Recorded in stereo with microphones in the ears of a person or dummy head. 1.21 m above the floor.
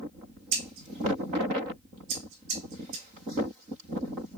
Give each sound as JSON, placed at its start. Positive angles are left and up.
{"t": 0.5, "sound": "scissors", "side_deg": -55, "distance_m": 2.5}